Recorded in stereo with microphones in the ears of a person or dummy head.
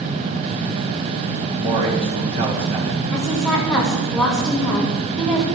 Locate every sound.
1.6 s a man speaking: 30° right (ahead or behind), 3.5 m
3.1 s a woman speaking: centre (ahead or behind), 4 m